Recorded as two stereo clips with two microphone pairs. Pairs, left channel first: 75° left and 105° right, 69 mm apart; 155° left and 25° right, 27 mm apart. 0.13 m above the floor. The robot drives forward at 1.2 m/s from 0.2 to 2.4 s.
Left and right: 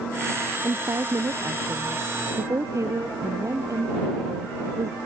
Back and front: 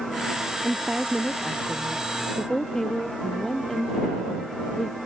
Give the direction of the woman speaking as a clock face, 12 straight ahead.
3 o'clock.